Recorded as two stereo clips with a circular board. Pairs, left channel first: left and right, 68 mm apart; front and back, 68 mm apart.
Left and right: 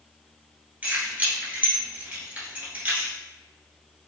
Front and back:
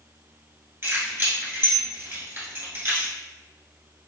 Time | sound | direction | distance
0.8 | keys jangling | 140° right | 1.1 m